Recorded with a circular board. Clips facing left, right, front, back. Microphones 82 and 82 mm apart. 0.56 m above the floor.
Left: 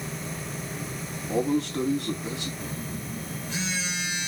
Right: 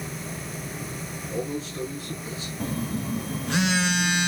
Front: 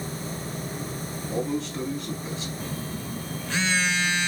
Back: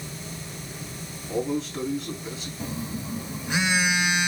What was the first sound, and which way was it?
A man speaking, 90° left.